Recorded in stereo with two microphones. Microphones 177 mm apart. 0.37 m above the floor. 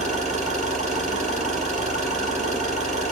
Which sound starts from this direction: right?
An engine running, at 0.0 s.